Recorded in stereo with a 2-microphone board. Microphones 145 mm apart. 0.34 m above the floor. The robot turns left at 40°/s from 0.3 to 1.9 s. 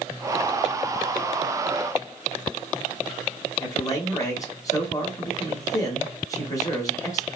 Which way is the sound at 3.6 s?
25° left (ahead or behind).